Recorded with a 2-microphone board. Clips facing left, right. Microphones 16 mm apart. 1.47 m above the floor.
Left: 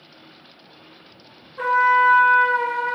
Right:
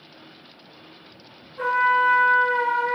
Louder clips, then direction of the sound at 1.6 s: Left 3 dB; 20° left (ahead or behind).